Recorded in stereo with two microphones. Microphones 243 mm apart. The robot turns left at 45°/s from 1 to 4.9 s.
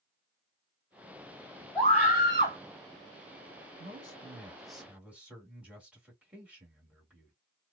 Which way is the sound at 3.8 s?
40° left.